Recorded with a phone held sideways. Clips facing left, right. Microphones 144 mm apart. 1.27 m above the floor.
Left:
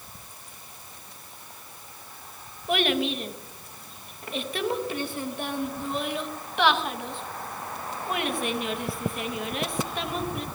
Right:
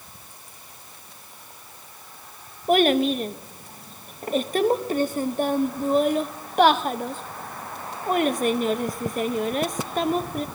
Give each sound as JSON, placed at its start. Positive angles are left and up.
{"t": 2.7, "sound": "a child speaking", "side_deg": -45, "distance_m": 0.9}